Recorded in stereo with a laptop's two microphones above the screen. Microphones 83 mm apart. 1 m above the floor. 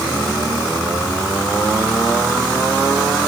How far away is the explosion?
No explosion in this recording.